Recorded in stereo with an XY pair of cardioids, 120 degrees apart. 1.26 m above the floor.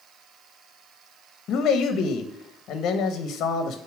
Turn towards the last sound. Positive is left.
turn(degrees=65)